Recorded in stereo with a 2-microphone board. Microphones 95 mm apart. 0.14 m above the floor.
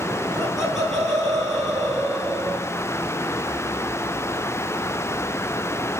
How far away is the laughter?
About 10 m.